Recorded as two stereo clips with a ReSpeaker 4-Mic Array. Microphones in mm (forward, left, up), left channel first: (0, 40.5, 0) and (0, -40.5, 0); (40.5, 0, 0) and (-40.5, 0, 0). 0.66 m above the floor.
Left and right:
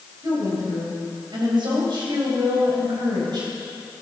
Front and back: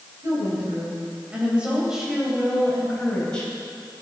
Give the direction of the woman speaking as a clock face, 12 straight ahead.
4 o'clock.